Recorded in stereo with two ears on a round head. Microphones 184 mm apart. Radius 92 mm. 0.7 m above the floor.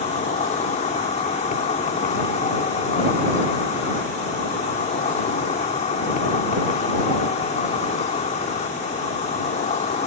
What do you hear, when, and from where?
0.0 s an insect: 35° left (ahead or behind)